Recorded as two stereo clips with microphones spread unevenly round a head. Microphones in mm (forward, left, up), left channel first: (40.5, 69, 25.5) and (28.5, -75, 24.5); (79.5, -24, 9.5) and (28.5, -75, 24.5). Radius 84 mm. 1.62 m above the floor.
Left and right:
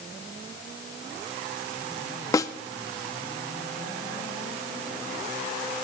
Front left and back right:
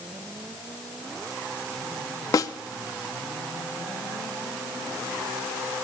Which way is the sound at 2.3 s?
35° left.